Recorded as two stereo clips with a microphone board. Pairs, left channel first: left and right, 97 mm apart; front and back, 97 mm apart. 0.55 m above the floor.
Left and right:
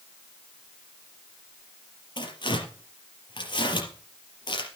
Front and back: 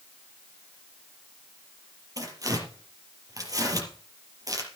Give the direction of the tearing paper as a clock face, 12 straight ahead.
8 o'clock.